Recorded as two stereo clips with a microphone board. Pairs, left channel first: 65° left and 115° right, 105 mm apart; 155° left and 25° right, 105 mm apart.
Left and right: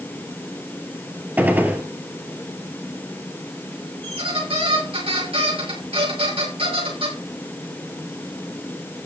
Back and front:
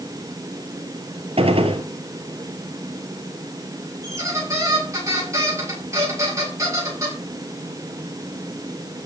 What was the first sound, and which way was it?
A gunshot, 40° right.